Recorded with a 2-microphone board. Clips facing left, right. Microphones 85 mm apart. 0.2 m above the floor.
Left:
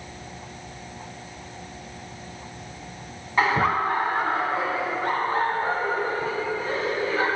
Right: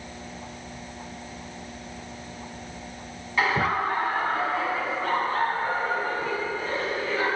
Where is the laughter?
30° left (ahead or behind), 1.8 m; by 7.2 s 65° left (ahead or behind), 6.5 m.